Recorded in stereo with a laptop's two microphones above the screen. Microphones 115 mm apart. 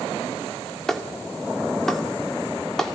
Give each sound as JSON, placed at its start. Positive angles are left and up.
{"t": 0.9, "sound": "a clap", "side_deg": 5, "distance_m": 2.5}